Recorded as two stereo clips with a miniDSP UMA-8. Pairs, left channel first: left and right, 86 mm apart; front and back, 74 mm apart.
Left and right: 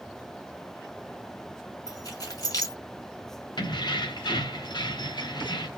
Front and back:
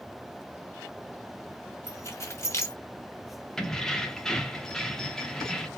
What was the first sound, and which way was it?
Keys jangling, 50° left.